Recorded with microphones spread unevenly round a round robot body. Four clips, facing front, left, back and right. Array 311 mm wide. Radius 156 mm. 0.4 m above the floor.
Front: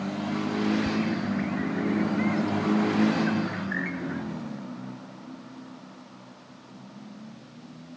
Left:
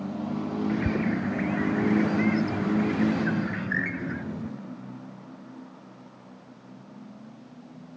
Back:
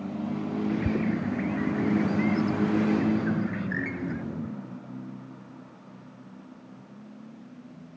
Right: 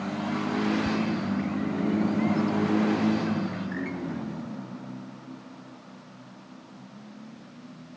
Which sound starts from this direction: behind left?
A bird, at 0.7 s.